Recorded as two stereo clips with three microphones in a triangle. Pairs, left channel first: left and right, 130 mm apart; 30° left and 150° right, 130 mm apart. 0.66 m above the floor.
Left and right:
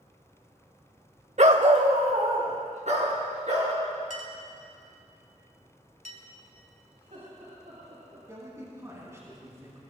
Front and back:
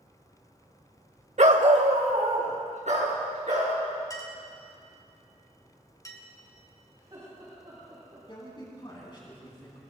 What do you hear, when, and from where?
1.4 s a dog barking: 120° right, 0.9 m; by 3.7 s 125° right, 4.5 m
4.1 s a clink: 90° left, 2 m
7.0 s laughter: 95° right, 4.5 m
8.3 s a man speaking: 25° right, 5 m